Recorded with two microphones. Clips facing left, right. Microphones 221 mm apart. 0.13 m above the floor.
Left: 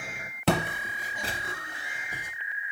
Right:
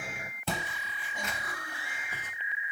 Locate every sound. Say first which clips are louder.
0.5 s footsteps: left 11 dB; 75° left (ahead or behind), 0.7 m; by 2.3 s 10° left (ahead or behind), 1.7 m